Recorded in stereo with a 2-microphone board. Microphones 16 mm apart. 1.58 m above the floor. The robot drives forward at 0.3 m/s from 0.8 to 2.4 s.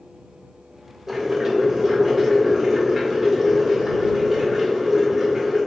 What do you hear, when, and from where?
1.1 s boiling: 15° right (ahead or behind), 0.9 m